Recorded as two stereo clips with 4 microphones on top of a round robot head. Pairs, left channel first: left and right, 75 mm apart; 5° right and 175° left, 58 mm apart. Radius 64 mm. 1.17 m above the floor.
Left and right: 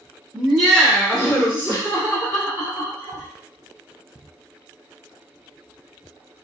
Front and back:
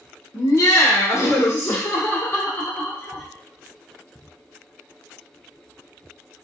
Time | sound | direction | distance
0.3 | laughter | 5° right | 1.0 m